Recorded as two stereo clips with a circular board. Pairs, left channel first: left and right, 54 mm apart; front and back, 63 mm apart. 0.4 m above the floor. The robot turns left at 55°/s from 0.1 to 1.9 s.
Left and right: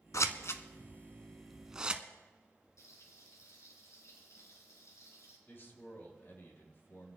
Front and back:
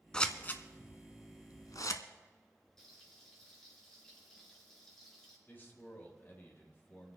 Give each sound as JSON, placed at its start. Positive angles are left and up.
{"t": 0.1, "sound": "scissors", "azimuth_deg": 75, "distance_m": 0.8}
{"t": 2.8, "sound": "frying", "azimuth_deg": 80, "distance_m": 4.0}
{"t": 5.5, "sound": "a man speaking", "azimuth_deg": 50, "distance_m": 3.0}